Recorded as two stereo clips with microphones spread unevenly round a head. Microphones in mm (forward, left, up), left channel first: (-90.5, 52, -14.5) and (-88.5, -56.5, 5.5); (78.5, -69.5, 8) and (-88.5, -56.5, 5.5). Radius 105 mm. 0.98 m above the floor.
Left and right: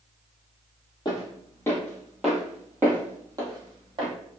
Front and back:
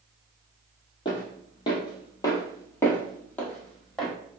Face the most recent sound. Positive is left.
turn(degrees=-90)